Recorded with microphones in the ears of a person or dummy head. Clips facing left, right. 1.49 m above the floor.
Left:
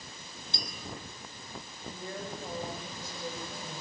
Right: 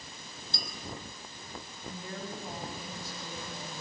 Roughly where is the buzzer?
No buzzer in this recording.